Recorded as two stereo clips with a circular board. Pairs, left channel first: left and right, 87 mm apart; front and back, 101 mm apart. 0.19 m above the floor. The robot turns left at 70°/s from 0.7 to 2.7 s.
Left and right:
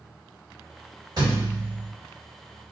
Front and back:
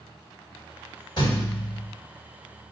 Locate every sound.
1.2 s a thud: 45° right, 1.6 m; by 1.9 s 95° right, 1.6 m